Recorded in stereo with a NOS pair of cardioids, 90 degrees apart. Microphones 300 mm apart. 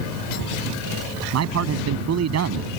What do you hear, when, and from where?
1.3 s a man speaking: 60° right